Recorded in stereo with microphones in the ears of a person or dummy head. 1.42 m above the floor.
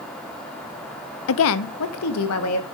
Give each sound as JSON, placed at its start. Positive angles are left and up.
{"t": 1.3, "sound": "a woman speaking", "side_deg": 70, "distance_m": 0.7}